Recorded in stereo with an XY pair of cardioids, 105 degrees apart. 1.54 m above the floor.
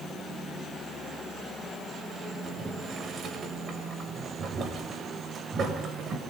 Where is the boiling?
50° right, 8.5 m.